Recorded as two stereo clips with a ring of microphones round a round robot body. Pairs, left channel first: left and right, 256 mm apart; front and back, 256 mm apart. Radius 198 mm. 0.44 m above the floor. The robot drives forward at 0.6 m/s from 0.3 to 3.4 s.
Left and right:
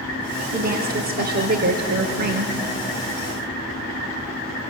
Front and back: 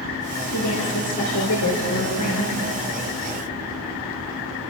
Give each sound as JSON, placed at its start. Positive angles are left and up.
{"t": 0.5, "sound": "a woman speaking", "azimuth_deg": -35, "distance_m": 7.0}